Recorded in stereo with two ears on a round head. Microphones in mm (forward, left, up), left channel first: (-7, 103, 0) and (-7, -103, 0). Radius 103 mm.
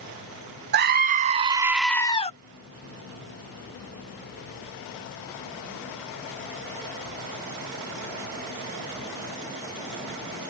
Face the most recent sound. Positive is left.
turn(degrees=30)  # may be behind; listen again after turning